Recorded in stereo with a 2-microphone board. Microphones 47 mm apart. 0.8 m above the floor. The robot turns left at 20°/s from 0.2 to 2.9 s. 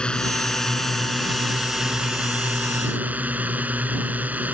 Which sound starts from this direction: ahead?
A drone, at 0.0 s.